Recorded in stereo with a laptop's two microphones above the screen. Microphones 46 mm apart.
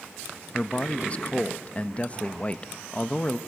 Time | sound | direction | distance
0.5 | a man speaking | 25° left (ahead or behind) | 1.1 m